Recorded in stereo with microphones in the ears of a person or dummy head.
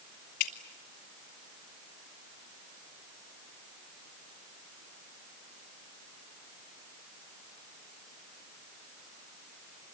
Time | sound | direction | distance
0.4 | dripping | 60° left (ahead or behind) | 1.5 m